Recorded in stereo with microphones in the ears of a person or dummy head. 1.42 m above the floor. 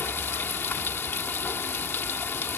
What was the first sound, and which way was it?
Running water, 15° left (ahead or behind).